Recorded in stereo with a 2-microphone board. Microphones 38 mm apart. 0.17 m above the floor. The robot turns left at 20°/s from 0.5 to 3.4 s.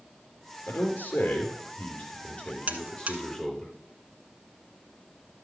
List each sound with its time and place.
0.7 s a man speaking: 80° left, 3.5 m; by 3.7 s 25° left, 3.5 m
2.7 s a buzzer: 45° right (ahead or behind), 1.3 m; by 3.2 s 40° right (ahead or behind), 1.3 m